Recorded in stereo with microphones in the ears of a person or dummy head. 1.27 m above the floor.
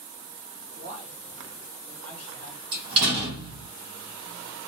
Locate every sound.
0.8 s a man speaking: 50° right (ahead or behind), 0.7 m; by 2.6 s 15° left (ahead or behind), 1.6 m
2.7 s a door slam: 25° right (ahead or behind), 1.1 m